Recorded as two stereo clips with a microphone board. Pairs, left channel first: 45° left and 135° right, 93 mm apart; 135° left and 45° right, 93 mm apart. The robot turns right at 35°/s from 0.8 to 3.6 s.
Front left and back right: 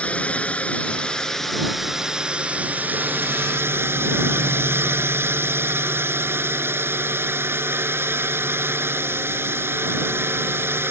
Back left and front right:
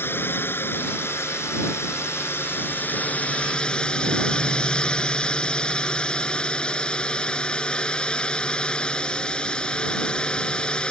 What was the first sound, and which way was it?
A drone, 105° left.